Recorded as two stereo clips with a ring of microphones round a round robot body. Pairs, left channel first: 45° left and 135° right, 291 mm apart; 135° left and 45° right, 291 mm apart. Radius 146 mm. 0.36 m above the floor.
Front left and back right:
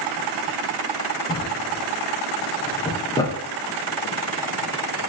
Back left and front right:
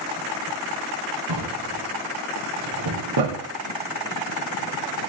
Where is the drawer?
35° right, 5.5 m.